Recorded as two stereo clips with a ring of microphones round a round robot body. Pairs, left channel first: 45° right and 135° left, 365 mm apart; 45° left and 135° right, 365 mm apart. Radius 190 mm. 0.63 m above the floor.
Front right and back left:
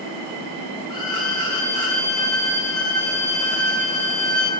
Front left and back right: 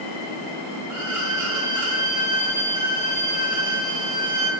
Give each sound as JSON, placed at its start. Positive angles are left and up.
{"t": 0.9, "sound": "a violin", "azimuth_deg": -85, "distance_m": 2.0}